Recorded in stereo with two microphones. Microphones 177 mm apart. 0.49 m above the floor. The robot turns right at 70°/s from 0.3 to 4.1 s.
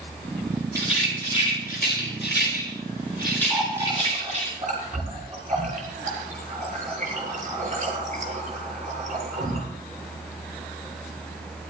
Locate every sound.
0.8 s a rattle: 15° right (ahead or behind), 7.5 m; by 4.5 s 35° right (ahead or behind), 7.5 m
3.5 s a running tap: centre (ahead or behind), 7 m; by 9.6 s 45° right (ahead or behind), 7 m